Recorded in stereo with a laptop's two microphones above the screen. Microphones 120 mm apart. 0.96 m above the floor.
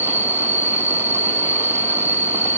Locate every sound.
0.0 s an insect: 20° right (ahead or behind)